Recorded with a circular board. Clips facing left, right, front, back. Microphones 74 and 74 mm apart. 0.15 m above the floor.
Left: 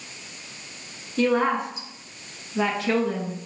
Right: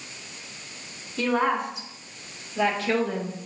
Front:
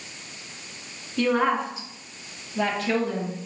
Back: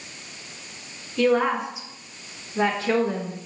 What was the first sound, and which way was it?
A woman speaking, 90° left.